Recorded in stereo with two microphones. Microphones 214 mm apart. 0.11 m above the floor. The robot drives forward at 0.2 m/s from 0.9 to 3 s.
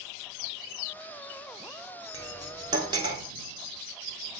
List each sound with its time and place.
2.1 s cutlery clinking: 20° right (ahead or behind), 0.7 m